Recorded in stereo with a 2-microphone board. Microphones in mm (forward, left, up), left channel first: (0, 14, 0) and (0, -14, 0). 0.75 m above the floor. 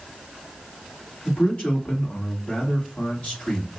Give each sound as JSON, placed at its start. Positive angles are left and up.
{"t": 1.2, "sound": "a man speaking", "side_deg": 60, "distance_m": 2.5}